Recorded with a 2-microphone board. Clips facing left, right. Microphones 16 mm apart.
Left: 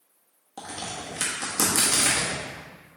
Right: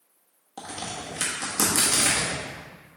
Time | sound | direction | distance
0.6 | a crack | 5° right (ahead or behind) | 1.4 m